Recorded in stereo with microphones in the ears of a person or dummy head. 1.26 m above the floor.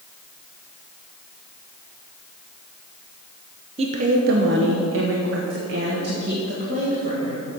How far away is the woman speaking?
About 0.9 m.